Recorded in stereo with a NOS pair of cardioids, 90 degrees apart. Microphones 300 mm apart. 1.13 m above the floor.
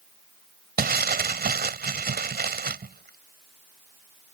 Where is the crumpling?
30° right.